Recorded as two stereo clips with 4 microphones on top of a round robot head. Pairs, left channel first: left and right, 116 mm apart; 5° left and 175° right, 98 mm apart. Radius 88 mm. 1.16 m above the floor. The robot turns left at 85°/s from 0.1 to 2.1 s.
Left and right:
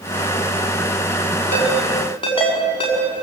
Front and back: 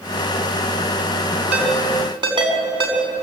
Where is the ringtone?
160° right, 5 m; by 3.0 s 150° left, 5 m.